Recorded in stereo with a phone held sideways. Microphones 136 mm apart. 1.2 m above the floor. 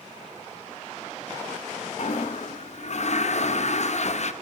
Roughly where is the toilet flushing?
Left.